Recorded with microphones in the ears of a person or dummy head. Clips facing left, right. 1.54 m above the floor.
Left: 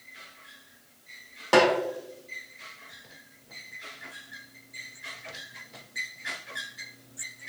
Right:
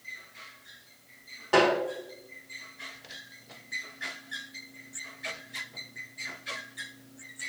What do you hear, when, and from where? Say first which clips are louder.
1.5 s a snare drum: left 2 dB; 65° left (ahead or behind), 2.5 m